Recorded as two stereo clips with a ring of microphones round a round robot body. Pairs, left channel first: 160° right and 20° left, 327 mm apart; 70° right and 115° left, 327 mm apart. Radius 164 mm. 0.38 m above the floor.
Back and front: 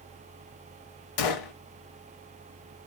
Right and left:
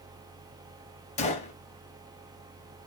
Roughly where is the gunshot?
Behind right.